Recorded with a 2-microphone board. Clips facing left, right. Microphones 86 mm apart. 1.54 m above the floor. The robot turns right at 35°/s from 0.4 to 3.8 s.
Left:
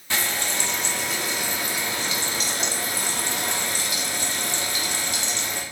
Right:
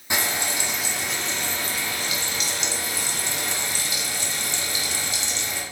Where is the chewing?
No chewing in this recording.